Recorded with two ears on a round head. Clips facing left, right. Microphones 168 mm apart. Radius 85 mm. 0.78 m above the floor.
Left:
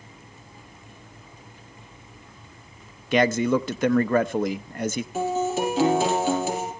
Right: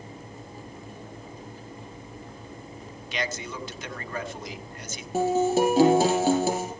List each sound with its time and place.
3.1 s a man speaking: 45° left (ahead or behind), 0.5 m
5.1 s a guitar: 40° right (ahead or behind), 4.5 m